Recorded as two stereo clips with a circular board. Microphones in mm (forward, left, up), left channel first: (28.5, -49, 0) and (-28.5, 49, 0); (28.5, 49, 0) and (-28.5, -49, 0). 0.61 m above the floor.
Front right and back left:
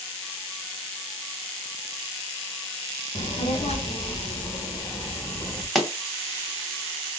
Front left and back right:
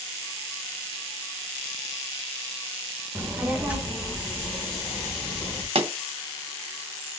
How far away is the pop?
About 0.8 m.